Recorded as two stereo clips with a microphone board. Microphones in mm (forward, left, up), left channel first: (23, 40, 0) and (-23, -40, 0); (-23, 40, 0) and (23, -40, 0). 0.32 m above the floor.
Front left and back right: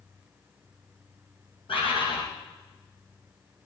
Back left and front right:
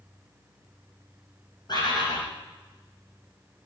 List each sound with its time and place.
1.7 s a bird: 80° left, 5.5 m